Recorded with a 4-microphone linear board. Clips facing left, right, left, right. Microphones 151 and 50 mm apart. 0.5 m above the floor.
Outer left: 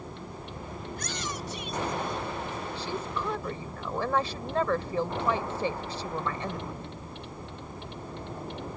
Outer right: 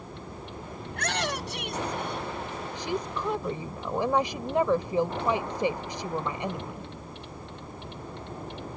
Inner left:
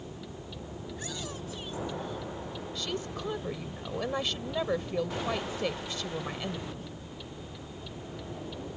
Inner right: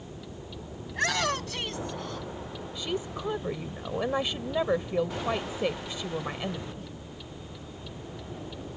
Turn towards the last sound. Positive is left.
turn(degrees=-15)  # may be behind; listen again after turning